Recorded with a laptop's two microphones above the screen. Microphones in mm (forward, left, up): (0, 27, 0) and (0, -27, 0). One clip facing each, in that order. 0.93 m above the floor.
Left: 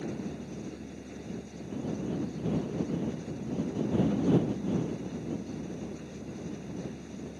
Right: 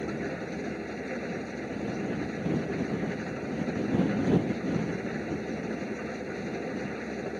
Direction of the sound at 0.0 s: 75° right (ahead or behind).